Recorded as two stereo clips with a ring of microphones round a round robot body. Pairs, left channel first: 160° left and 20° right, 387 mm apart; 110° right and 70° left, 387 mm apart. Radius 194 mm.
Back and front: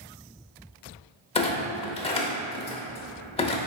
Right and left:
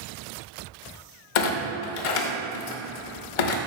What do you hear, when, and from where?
1.4 s a clunk: 125° right, 0.8 m